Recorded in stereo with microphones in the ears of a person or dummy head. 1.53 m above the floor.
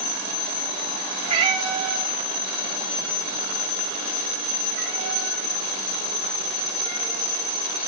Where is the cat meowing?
30° right (ahead or behind), 2.5 m; by 7.3 s 60° right (ahead or behind), 8 m.